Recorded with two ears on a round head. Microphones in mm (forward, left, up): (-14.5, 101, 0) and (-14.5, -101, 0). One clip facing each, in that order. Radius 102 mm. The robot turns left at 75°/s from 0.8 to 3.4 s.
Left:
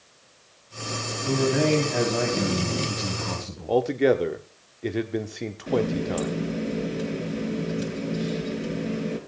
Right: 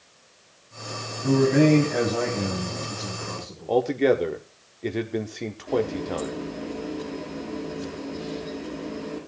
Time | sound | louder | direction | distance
1.2 | a man speaking | right 5 dB | 120° right | 3.5 m
3.7 | a man speaking | even | 5° left (ahead or behind) | 1.0 m
5.7 | a running tap | left 1 dB | 75° left (ahead or behind) | 5 m